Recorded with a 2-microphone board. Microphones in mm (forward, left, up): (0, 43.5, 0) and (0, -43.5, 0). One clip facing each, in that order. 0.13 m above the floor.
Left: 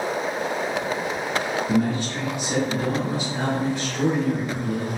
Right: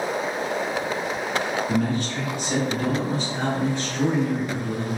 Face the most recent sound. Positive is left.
turn(degrees=-5)  # may be behind; listen again after turning